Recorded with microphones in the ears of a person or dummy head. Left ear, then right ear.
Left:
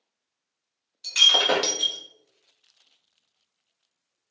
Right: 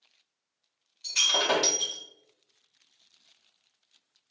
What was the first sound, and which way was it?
Breaking glass, 10° left (ahead or behind).